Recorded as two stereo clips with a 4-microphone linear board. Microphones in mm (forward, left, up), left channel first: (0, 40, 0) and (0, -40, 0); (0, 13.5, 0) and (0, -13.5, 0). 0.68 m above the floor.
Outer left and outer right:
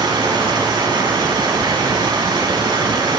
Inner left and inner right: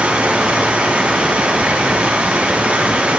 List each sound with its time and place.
0.0 s running water: 80° right, 4 m